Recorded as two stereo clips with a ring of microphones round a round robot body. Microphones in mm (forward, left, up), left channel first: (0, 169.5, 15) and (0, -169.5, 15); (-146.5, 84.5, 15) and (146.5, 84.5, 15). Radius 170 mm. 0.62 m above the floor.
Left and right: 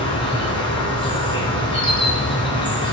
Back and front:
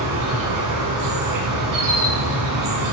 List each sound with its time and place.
0.0 s an insect: 15° left, 1.7 m